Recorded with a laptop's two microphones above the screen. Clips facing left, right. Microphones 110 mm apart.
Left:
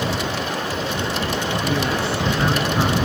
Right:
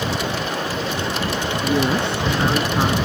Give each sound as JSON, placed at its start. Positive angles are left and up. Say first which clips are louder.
{"t": 1.6, "sound": "a woman speaking", "louder": "right 5 dB", "side_deg": -25}